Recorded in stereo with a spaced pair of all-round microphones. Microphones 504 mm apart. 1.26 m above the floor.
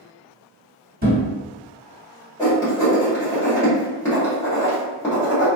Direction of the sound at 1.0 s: 25° right (ahead or behind).